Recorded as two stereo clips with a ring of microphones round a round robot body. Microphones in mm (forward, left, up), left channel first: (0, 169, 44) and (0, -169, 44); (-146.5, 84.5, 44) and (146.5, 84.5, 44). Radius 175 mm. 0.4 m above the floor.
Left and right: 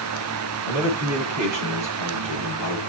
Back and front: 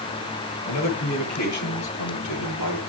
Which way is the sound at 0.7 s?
130° right.